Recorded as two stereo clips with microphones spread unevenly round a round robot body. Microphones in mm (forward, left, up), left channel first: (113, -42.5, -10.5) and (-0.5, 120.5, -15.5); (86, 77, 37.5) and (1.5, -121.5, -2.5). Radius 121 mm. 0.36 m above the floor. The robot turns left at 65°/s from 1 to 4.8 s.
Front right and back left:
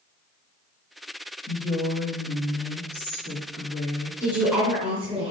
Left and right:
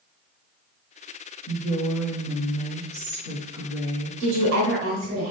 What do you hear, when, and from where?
1.5 s a woman speaking: 20° left, 4 m; by 4.1 s 150° right, 4 m
4.2 s a woman speaking: 130° right, 2.5 m; by 5.3 s 170° right, 2.5 m